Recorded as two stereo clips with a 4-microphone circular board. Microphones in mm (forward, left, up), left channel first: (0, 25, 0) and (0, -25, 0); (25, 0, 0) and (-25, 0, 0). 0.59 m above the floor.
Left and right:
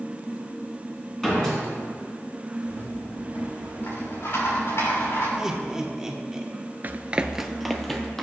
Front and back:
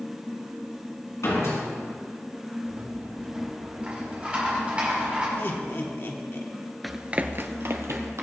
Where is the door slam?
10° left, 3.5 m.